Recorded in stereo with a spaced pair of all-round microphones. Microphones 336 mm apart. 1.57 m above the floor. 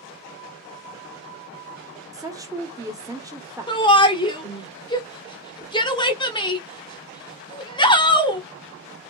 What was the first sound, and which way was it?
A woman speaking, 10° right (ahead or behind).